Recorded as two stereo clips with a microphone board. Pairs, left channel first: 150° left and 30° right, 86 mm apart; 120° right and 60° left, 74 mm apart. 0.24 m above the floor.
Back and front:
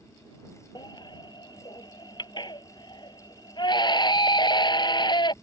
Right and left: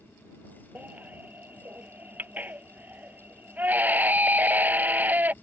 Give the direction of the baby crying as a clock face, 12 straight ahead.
8 o'clock.